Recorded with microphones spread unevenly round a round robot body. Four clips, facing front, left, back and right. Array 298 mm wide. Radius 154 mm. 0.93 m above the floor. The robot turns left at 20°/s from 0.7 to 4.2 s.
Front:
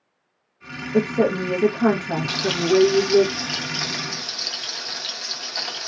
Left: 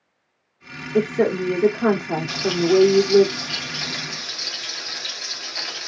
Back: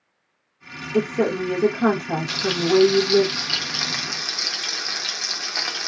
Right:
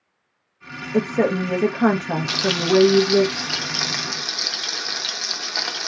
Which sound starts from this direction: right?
Frying, at 2.3 s.